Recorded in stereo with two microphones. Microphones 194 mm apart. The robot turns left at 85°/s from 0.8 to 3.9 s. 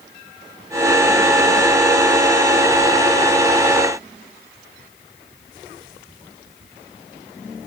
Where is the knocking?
No knocking in this recording.